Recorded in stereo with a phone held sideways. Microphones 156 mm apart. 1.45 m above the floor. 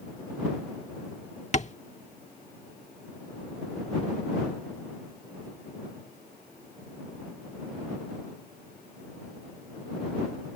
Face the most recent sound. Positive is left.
turn(degrees=50)  # may be behind; listen again after turning